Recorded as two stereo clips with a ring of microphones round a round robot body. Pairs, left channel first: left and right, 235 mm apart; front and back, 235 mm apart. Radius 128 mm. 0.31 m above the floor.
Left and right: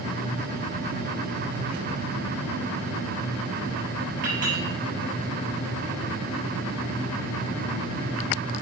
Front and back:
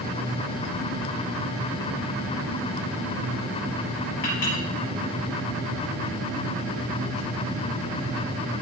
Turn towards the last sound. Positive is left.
turn(degrees=-40)